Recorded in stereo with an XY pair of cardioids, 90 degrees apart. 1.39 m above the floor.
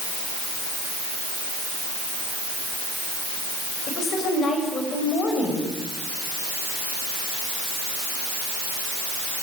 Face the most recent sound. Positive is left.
turn(degrees=70)